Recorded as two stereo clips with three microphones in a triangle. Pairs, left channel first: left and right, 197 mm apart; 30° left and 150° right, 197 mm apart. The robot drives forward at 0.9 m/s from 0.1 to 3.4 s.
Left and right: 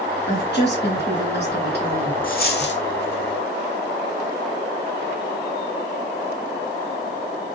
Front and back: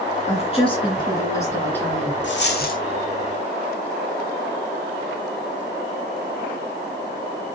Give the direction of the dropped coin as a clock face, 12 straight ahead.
10 o'clock.